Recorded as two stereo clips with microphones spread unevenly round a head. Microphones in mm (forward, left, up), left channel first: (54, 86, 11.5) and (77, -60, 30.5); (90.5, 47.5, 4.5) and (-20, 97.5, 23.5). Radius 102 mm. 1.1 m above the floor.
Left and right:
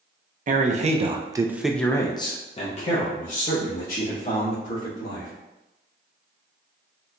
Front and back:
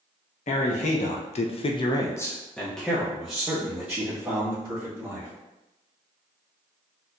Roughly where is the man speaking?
Ahead right.